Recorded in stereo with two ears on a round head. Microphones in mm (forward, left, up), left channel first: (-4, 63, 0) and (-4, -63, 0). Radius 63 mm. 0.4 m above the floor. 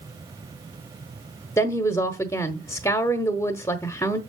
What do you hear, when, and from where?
1.6 s a woman speaking: 15° left (ahead or behind), 0.9 m